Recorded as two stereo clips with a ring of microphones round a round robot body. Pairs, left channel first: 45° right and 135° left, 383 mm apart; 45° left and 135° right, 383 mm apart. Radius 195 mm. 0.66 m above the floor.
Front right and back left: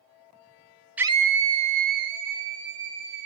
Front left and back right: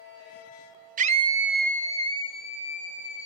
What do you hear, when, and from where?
1.0 s a scream: 145° right, 0.9 m; by 3.3 s 115° left, 2.5 m